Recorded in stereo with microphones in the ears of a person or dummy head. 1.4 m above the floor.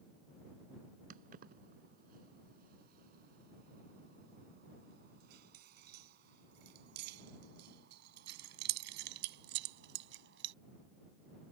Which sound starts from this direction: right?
Keys jangling, at 1.1 s.